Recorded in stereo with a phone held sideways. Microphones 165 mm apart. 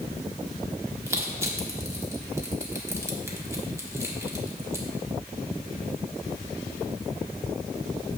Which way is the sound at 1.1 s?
15° right (ahead or behind).